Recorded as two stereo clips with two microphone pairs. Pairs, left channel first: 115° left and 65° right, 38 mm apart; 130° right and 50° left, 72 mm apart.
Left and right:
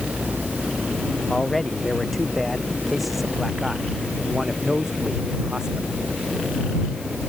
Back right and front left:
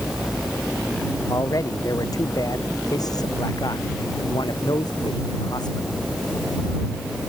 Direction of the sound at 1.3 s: 170° right.